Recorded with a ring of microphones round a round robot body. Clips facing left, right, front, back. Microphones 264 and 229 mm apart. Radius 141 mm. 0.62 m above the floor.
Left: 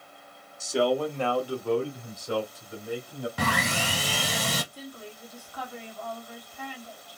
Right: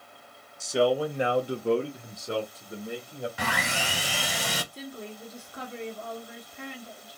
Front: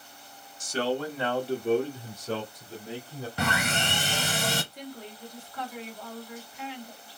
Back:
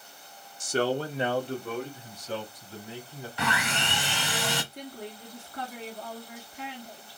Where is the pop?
I don't hear a pop.